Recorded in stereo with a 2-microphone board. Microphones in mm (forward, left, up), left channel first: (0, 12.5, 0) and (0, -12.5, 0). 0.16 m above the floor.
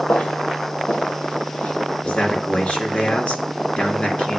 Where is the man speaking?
55° left (ahead or behind), 2.5 m.